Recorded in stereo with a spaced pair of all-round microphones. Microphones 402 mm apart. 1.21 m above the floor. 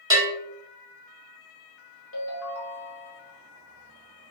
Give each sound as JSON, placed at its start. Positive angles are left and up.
{"t": 0.1, "sound": "a bell", "side_deg": -10, "distance_m": 0.9}
{"t": 2.1, "sound": "a ringtone", "side_deg": 35, "distance_m": 0.9}